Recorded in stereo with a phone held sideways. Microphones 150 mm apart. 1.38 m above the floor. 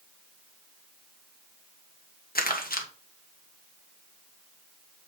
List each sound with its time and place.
2.4 s crumpling: 70° left (ahead or behind), 1.5 m